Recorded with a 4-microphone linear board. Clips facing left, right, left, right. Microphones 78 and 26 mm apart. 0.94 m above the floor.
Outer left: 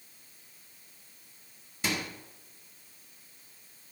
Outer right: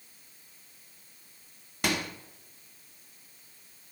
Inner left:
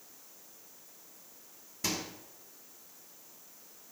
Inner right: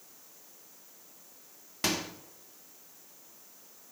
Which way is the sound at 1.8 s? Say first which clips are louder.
Outer right 3 dB, inner right 4 dB; 65° right (ahead or behind).